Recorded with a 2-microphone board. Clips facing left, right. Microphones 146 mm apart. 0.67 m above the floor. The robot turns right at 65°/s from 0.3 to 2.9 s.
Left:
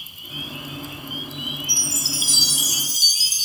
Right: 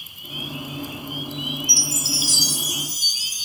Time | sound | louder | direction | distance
1.7 | a chime | right 2 dB | 15° left | 0.7 m